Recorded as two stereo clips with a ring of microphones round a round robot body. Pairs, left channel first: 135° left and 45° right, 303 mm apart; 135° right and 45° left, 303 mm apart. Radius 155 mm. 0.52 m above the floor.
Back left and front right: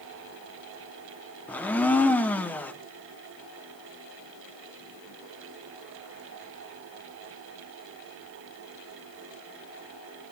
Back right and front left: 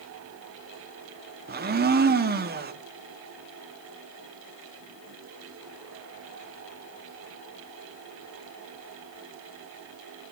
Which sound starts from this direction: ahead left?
A blender, at 1.5 s.